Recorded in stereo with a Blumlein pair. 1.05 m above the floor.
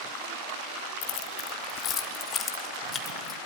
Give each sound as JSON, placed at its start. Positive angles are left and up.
{"t": 1.0, "sound": "keys jangling", "azimuth_deg": 45, "distance_m": 1.1}